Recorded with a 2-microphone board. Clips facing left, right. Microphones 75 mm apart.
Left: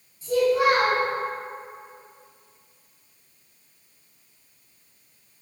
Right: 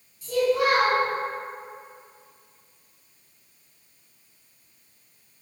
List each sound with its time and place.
0.2 s a child speaking: 30° left (ahead or behind), 1.1 m